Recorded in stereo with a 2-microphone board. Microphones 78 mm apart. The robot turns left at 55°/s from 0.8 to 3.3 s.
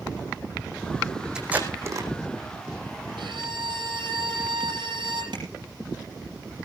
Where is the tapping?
80° right, 8 m.